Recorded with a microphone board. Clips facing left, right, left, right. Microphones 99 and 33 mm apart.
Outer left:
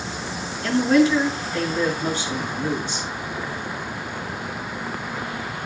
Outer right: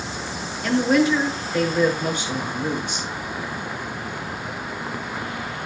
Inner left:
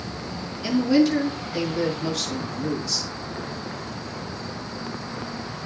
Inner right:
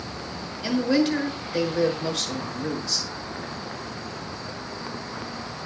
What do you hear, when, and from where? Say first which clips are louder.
0.6 s a woman speaking: outer left 1 dB, inner left 3 dB; 15° right (ahead or behind), 6 m